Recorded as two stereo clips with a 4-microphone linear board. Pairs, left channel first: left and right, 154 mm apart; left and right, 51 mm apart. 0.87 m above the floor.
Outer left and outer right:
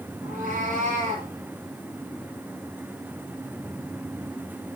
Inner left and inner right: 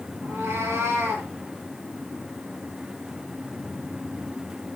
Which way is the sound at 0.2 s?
65° right (ahead or behind).